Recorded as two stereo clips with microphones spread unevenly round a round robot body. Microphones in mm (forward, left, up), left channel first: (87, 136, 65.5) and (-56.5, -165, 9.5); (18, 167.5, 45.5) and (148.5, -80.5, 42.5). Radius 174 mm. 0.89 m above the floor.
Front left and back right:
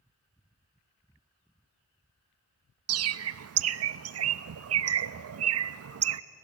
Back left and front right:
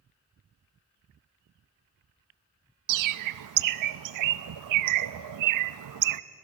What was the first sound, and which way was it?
A bird, 70° right.